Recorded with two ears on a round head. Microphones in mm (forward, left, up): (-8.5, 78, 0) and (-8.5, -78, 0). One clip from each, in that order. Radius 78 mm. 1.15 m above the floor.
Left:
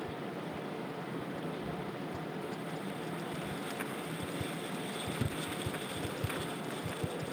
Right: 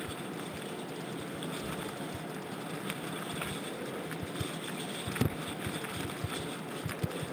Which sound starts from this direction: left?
Knocking, at 1.6 s.